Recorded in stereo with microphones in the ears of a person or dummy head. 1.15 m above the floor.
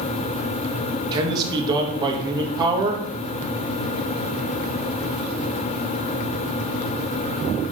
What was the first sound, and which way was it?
A man speaking, 20° right (ahead or behind).